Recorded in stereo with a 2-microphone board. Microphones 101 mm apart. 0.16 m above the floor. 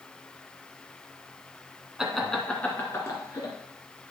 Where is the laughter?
5° right (ahead or behind), 1.6 m; by 3.5 s 40° left (ahead or behind), 2.5 m.